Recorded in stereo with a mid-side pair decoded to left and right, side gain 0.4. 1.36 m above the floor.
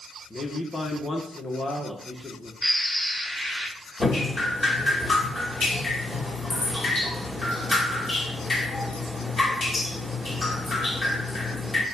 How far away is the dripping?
About 2.5 m.